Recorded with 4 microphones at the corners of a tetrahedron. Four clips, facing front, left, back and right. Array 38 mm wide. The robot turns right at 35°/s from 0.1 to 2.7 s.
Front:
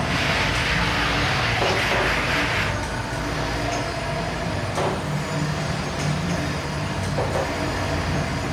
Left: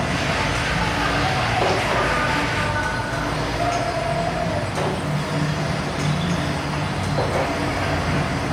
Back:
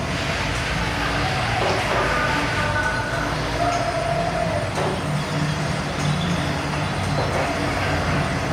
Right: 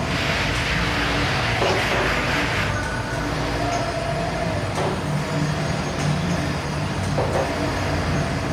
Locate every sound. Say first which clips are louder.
0.0 s an insect: left 1 dB, front 2 dB; 75° left, 4.5 m; by 8.5 s 165° left, 4.5 m